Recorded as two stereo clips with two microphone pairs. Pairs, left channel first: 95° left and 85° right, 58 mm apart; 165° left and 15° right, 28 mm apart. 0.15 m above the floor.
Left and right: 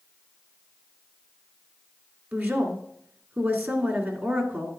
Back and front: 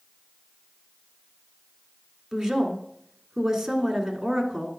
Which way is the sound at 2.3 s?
85° right.